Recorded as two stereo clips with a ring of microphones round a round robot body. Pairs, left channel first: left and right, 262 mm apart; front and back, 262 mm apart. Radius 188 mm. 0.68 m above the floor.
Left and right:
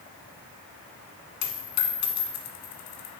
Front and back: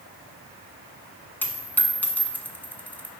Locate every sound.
1.4 s a dropped coin: 85° left, 1.1 m